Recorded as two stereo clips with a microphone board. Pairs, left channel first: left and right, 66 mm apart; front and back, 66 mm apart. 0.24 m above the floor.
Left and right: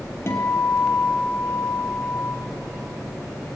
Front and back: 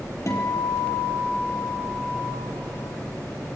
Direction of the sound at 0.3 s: 40° left.